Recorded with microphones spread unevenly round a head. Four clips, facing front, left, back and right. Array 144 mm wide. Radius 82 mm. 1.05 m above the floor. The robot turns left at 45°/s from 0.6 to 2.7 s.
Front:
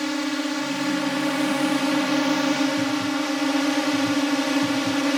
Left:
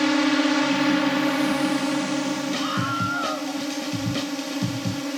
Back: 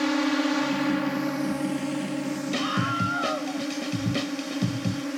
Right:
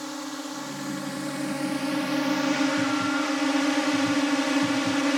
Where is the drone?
75° left; by 5.2 s 20° right.